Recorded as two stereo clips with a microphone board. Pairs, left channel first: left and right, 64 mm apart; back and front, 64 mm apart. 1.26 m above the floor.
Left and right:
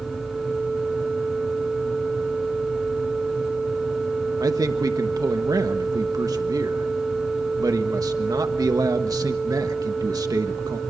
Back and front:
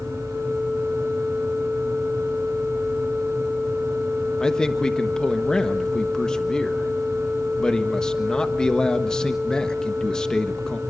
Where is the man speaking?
100° right, 1.4 m.